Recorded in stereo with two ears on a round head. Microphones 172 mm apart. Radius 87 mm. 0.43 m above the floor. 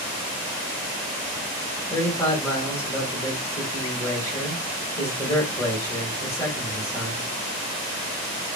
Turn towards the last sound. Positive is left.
turn(degrees=15)  # may be behind; listen again after turning